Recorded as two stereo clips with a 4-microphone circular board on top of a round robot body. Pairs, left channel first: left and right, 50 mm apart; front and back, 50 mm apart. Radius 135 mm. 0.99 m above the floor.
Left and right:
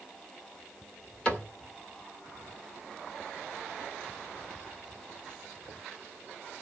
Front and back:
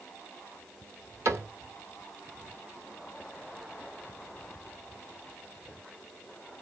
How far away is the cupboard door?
About 1.9 m.